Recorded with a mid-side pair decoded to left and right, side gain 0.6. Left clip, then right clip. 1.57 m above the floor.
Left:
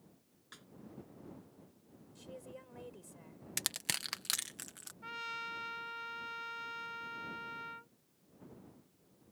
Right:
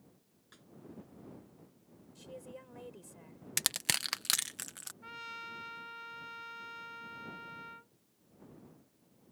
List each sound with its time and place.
0.5 s a snare drum: 35° left
2.1 s a woman speaking: 10° right
3.6 s crushing: 25° right
5.0 s a trumpet: 20° left